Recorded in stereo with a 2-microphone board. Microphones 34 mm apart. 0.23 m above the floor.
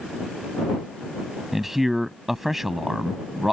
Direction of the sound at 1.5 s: 10° right (ahead or behind).